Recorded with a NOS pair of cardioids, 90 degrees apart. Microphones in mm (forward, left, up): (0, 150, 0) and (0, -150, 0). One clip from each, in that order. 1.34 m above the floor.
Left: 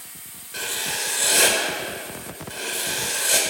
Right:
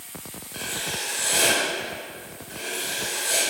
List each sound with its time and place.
0.5 s writing: 35° left, 4 m